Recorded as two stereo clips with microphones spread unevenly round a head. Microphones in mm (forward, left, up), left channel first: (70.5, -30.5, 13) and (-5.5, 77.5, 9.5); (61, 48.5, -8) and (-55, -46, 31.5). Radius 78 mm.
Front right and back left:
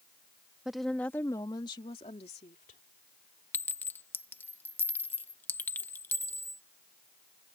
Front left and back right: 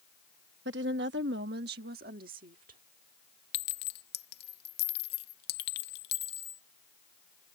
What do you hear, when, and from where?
0.7 s a woman speaking: 150° right; by 2.8 s 105° right
3.5 s a clink: 15° left